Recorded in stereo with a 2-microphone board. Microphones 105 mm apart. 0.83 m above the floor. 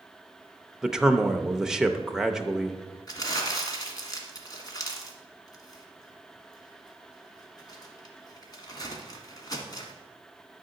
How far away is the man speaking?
About 0.5 m.